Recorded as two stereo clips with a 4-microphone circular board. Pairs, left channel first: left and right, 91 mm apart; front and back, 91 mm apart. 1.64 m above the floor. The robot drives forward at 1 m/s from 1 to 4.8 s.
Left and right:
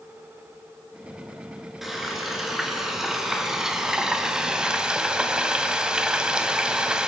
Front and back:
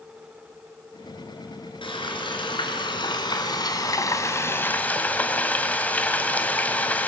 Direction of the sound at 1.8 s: 5° right.